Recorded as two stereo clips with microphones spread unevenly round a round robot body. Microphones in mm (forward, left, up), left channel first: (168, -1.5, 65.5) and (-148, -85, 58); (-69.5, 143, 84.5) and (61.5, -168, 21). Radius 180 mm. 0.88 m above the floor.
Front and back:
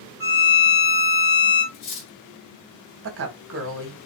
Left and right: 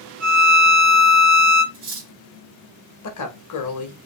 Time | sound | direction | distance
0.2 | a violin | 5° right | 2.5 m
1.7 | cutlery clinking | straight ahead | 2 m
3.0 | a woman speaking | 150° left | 1.3 m